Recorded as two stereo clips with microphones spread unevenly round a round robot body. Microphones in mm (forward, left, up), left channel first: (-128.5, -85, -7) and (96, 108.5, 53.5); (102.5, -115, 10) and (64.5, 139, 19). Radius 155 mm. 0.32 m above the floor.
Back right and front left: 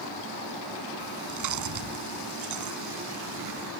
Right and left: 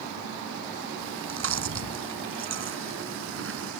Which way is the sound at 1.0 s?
70° left.